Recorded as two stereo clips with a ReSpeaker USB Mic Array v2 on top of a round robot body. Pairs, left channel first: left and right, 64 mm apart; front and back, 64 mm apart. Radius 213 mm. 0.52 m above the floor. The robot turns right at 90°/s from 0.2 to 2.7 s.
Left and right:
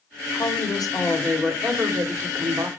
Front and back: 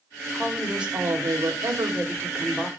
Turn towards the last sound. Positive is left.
turn(degrees=-80)